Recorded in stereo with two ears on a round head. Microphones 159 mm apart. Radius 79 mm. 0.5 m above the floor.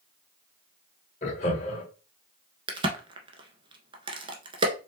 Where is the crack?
30° right (ahead or behind), 1.0 m.